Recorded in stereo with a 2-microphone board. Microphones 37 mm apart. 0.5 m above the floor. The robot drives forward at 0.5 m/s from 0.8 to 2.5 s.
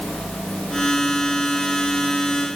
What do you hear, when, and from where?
Only background noise.